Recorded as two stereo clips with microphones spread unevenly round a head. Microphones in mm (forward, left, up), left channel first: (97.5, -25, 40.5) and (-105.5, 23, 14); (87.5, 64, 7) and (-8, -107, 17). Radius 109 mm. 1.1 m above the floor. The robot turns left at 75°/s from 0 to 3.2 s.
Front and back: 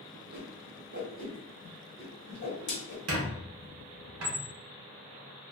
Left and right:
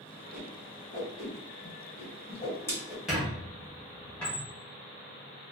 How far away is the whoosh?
About 1.3 m.